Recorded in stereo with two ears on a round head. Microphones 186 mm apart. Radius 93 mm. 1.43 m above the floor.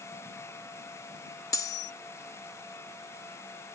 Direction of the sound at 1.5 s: 15° left (ahead or behind).